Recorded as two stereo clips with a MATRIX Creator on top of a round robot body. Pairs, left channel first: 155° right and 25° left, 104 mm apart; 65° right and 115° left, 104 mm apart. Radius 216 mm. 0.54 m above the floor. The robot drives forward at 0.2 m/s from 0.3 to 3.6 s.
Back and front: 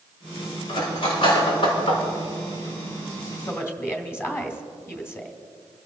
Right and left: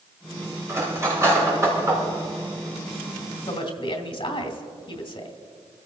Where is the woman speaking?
95° right, 3 m.